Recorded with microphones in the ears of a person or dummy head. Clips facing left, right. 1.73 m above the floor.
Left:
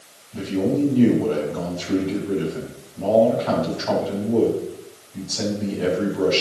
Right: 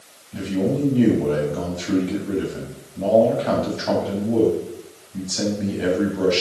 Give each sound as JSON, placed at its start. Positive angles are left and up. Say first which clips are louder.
{"t": 0.3, "sound": "a man speaking", "louder": "left 1 dB", "side_deg": -35, "distance_m": 4.0}